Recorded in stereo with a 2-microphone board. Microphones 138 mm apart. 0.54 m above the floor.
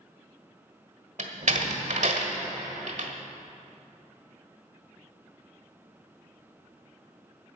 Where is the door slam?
60° right (ahead or behind), 1.5 m.